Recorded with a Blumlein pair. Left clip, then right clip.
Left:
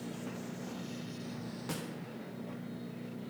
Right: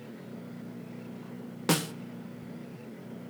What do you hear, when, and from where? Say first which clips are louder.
1.7 s a snare drum: right 14 dB; 35° right, 0.9 m